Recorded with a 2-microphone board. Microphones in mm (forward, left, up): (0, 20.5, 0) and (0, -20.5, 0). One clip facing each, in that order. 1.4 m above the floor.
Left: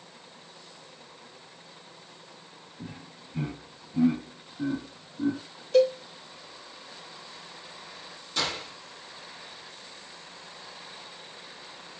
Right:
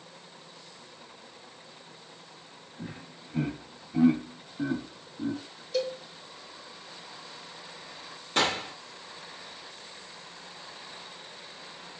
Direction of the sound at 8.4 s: 45° right (ahead or behind).